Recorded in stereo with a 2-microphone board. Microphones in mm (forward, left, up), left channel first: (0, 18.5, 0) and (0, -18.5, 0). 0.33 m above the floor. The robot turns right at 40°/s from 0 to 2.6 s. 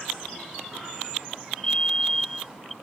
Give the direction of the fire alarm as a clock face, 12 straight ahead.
7 o'clock.